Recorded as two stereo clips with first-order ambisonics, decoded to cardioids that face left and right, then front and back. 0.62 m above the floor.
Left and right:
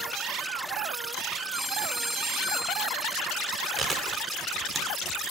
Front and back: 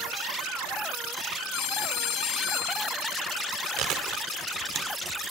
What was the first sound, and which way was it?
A phone ringing, 10° right.